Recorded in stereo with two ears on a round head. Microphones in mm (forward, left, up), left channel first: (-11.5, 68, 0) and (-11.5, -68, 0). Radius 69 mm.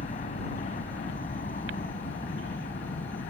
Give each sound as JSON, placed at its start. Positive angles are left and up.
{"t": 0.0, "sound": "a helicopter", "side_deg": 45}